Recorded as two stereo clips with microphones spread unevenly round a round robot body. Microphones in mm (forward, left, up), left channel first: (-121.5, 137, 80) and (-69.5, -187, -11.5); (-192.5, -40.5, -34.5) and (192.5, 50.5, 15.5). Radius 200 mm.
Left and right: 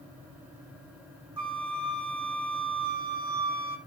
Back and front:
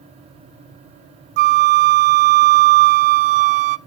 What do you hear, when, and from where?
1.4 s a flute: 10° right, 0.5 m